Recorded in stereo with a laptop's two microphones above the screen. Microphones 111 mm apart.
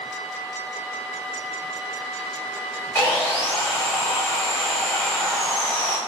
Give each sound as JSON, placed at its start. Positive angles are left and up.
{"t": 3.0, "sound": "sawing", "side_deg": 25, "distance_m": 1.7}